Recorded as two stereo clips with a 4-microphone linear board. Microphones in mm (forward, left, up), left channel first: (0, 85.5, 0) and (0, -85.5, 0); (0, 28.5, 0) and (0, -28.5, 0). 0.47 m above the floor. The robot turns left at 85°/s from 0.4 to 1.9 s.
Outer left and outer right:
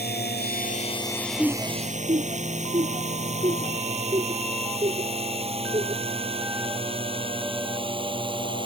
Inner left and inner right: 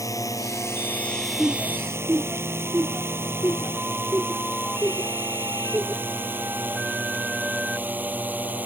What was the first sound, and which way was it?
A drone, 75° left (ahead or behind).